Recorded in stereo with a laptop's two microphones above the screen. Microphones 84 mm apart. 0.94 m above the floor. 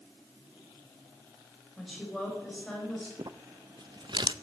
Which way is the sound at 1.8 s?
Centre (ahead or behind).